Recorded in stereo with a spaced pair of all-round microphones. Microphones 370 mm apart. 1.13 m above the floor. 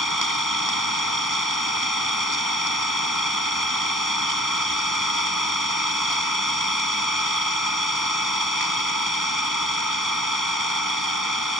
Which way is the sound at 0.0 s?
55° right (ahead or behind).